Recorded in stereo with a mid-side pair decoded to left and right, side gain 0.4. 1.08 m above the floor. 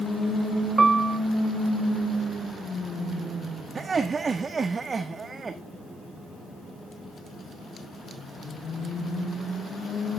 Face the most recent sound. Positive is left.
turn(degrees=-40)